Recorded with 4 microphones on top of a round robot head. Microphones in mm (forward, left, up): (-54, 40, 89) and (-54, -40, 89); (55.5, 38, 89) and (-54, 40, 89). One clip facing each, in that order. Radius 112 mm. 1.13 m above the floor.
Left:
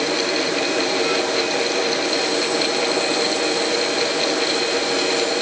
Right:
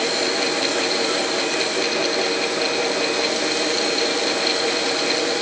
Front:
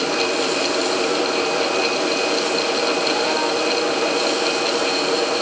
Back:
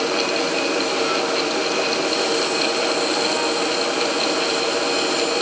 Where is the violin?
I don't hear a violin.